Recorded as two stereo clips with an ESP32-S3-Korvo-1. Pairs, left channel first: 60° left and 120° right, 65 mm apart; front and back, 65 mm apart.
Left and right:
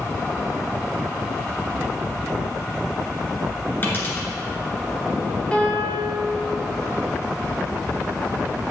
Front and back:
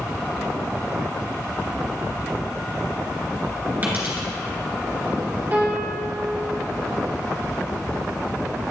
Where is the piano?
125° left, 2.5 m.